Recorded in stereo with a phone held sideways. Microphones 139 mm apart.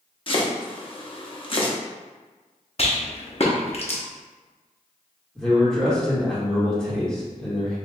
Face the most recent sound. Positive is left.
turn(degrees=5)  # may be behind; listen again after turning